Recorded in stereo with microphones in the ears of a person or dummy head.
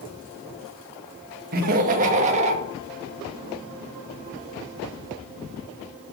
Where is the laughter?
50° right (ahead or behind), 1.6 m; by 2.6 s 35° right (ahead or behind), 2 m.